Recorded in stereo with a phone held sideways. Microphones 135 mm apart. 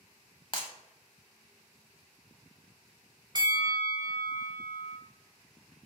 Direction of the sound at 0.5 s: 40° left (ahead or behind).